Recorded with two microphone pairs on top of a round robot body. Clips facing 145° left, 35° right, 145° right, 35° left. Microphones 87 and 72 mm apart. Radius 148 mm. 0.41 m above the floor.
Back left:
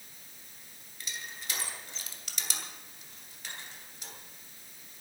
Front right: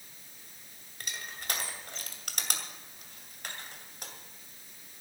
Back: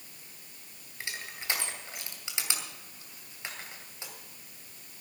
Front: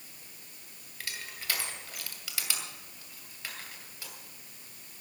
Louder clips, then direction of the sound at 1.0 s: Front right 2 dB, back 2 dB; 75° right.